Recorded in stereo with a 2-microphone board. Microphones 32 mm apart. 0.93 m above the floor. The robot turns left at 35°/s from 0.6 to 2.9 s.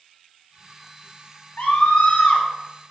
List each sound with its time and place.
1.6 s a scream: 70° left, 2 m; by 2.5 s 35° left, 2 m